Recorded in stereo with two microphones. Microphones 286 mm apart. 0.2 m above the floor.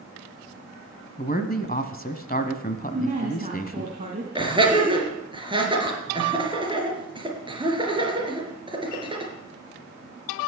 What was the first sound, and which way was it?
A man speaking, 30° left (ahead or behind).